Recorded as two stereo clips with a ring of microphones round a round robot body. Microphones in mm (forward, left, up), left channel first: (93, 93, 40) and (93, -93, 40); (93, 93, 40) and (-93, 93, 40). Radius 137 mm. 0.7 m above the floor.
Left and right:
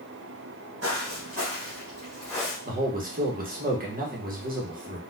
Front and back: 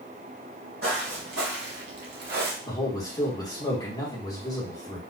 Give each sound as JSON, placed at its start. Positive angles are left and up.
{"t": 0.8, "sound": "footsteps", "azimuth_deg": -130, "distance_m": 1.3}
{"t": 2.6, "sound": "a man speaking", "azimuth_deg": -65, "distance_m": 1.1}